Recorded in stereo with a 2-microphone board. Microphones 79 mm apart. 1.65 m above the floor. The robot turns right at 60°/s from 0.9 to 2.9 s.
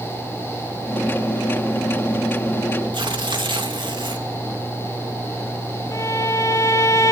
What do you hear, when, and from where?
2.9 s tearing paper: 85° right, 2.5 m
5.9 s a violin: 40° left (ahead or behind), 0.5 m